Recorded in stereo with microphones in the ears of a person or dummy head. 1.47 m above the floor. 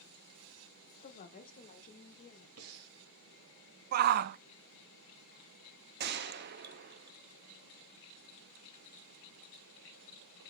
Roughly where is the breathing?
Right.